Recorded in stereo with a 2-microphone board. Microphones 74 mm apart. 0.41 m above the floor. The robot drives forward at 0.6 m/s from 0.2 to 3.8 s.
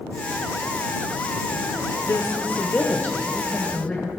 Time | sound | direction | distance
2.0 | a woman speaking | 30° left (ahead or behind) | 0.8 m